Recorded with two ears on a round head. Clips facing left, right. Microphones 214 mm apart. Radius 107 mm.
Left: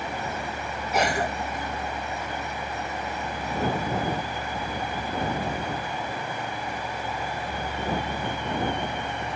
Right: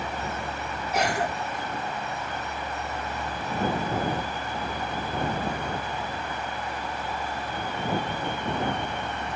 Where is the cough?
65° left (ahead or behind).